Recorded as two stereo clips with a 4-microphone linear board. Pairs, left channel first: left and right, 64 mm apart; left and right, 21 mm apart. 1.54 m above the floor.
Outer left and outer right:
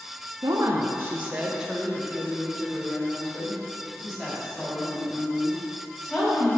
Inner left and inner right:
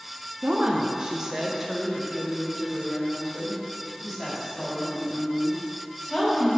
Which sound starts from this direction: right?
A woman speaking, at 0.4 s.